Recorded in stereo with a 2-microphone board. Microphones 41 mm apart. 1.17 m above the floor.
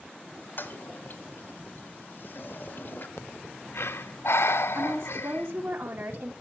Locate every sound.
0.6 s a toilet flushing: 55° left (ahead or behind), 1.8 m
3.2 s breathing: 90° left, 0.5 m
4.8 s a woman speaking: 75° right (ahead or behind), 2 m